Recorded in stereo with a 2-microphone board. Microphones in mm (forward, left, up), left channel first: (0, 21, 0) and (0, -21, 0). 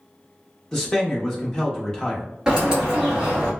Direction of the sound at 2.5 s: 20° right (ahead or behind).